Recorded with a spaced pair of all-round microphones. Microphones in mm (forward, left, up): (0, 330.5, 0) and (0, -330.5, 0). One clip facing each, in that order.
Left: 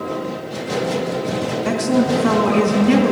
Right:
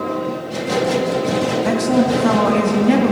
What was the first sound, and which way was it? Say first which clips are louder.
A woman speaking: even; 25° right (ahead or behind).